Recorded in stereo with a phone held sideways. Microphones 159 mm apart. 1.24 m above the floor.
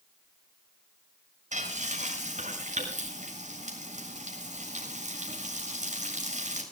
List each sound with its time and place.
1.5 s frying: 50° right (ahead or behind), 7 m